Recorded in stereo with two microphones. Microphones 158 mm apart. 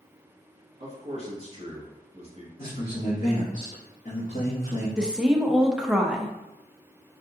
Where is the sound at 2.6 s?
60° left (ahead or behind), 1.3 m.